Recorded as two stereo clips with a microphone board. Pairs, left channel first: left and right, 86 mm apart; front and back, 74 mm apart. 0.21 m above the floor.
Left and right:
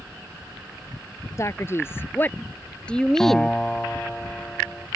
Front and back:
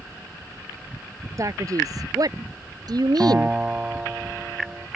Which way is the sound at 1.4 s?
140° left.